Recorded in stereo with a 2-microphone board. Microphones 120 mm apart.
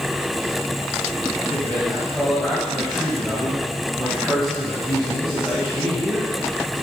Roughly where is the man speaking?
Centre.